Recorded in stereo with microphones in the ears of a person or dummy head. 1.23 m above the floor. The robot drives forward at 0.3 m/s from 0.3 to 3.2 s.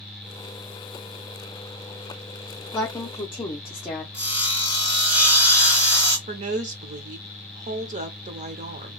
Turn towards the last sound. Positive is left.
turn(degrees=-35)  # may be behind; listen again after turning